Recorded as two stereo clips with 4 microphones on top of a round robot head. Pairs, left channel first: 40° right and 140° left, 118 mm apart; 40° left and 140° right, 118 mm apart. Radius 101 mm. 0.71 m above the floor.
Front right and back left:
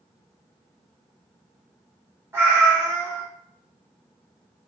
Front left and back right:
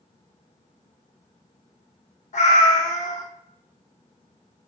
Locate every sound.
2.3 s a cat meowing: 65° left, 1.2 m